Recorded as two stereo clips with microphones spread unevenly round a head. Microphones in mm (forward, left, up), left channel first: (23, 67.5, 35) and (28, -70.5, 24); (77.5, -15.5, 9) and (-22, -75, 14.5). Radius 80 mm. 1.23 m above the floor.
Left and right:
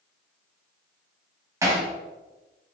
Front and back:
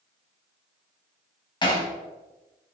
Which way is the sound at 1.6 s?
20° right.